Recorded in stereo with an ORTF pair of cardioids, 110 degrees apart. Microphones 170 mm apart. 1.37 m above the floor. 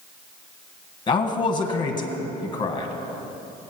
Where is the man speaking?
30° left, 1.6 m.